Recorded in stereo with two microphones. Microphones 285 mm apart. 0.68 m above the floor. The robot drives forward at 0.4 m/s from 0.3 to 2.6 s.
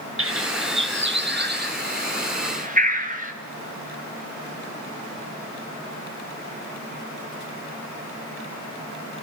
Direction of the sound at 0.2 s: 50° right (ahead or behind).